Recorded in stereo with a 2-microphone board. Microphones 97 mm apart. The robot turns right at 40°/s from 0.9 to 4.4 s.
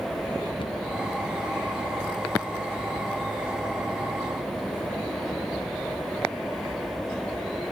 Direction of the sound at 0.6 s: 65° left (ahead or behind).